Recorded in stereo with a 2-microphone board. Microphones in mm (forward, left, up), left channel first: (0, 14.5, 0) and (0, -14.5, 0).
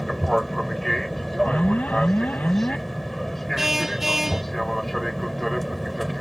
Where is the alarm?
60° left (ahead or behind).